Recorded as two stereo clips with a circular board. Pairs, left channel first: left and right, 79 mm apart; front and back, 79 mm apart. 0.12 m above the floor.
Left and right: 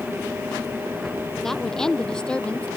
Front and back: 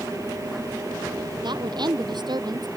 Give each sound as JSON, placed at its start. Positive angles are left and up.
{"t": 1.4, "sound": "a woman speaking", "azimuth_deg": 175}